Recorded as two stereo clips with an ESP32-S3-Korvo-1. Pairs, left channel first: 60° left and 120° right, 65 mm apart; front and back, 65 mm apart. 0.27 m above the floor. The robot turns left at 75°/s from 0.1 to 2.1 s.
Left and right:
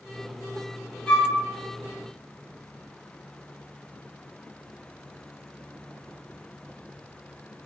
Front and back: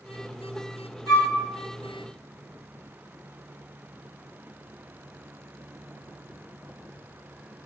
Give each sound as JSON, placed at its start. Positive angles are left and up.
{"t": 1.1, "sound": "a flute", "azimuth_deg": -10, "distance_m": 1.1}